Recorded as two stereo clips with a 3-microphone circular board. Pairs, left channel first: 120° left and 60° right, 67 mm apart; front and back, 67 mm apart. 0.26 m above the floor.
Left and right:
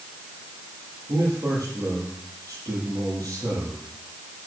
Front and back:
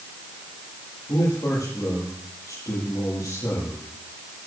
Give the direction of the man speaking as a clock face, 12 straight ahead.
1 o'clock.